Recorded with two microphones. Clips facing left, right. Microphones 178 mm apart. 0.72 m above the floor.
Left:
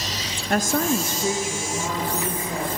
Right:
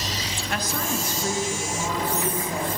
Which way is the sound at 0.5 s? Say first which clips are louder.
Left 8 dB; 45° left (ahead or behind).